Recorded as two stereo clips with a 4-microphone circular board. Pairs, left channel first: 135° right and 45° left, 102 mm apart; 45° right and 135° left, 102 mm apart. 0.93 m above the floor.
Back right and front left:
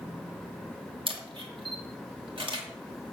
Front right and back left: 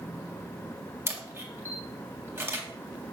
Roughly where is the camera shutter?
Left.